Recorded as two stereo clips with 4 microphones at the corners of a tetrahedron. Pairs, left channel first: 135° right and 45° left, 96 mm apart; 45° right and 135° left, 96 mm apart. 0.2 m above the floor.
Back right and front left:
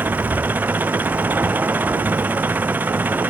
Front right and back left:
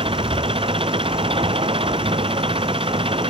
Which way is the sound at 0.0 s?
115° left.